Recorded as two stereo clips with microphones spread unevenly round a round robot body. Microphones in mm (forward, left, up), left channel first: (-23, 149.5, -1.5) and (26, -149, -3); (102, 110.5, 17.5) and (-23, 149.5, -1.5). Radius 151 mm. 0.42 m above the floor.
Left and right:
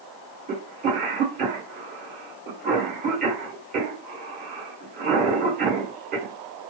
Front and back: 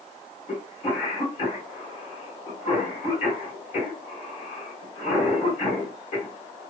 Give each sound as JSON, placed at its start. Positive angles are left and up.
{"t": 0.5, "sound": "a cough", "azimuth_deg": -30, "distance_m": 1.5}